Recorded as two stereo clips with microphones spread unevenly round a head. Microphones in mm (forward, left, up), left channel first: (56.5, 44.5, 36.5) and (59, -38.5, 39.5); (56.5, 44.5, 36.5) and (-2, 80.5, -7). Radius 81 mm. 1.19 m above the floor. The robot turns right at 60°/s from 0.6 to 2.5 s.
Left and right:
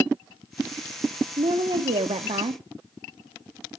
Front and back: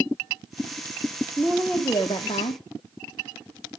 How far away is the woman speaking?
About 0.9 m.